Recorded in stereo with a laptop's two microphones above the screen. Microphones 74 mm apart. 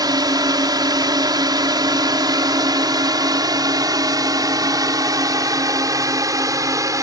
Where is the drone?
65° right (ahead or behind); by 7.0 s 50° right (ahead or behind).